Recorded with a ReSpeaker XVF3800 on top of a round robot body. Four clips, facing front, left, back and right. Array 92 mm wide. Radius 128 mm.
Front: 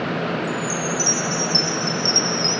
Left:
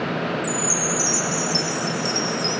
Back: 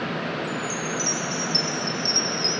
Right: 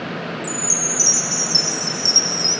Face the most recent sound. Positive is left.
turn(degrees=-155)